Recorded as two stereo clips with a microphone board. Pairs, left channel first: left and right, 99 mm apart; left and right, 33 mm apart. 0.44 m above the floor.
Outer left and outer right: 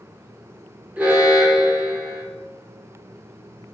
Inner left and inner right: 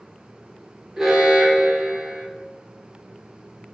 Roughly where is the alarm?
Centre.